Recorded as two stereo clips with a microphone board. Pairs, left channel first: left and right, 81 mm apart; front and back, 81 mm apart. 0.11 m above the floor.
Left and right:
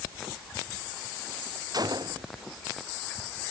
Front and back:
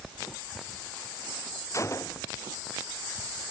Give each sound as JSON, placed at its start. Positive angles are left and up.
{"t": 1.7, "sound": "a gunshot", "azimuth_deg": -50}